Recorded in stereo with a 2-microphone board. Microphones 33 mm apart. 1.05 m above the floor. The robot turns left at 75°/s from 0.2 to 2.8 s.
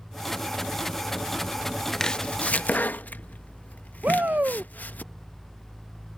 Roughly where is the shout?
Right.